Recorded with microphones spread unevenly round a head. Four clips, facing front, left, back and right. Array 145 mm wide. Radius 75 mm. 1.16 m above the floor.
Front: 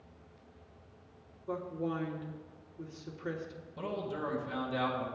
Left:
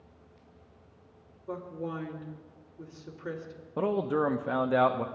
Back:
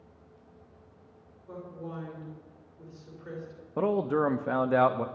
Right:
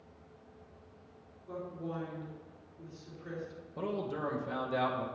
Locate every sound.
1.5 s a woman speaking: 35° left, 3 m
3.8 s a man speaking: 150° left, 0.8 m